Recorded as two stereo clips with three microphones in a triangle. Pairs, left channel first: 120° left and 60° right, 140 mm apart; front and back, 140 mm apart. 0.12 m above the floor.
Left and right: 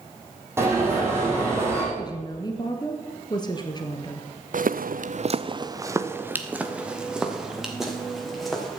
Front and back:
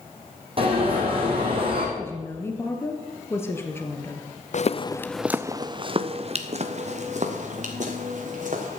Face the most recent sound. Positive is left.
turn(degrees=-150)